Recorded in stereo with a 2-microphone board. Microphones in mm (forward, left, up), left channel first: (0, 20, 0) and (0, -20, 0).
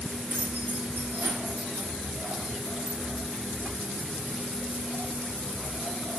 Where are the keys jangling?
70° right (ahead or behind), 1.8 m.